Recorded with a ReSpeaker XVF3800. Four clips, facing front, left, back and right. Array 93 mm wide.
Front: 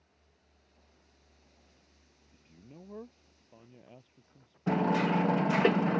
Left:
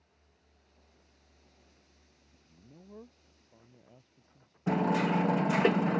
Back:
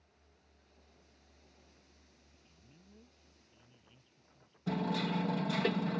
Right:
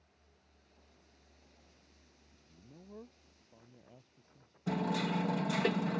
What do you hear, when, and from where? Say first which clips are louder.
2.3 s a man speaking: left 1 dB, front 14 dB; 5° left; by 5.0 s 5° right
4.7 s hammering: left 6 dB, front 7 dB; 40° left